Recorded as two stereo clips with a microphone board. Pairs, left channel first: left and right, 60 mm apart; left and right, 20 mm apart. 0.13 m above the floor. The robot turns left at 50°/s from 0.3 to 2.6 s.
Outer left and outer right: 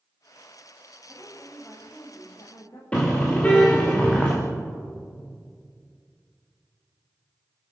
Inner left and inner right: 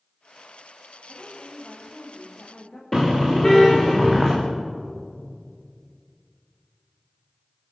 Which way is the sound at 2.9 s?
20° left (ahead or behind).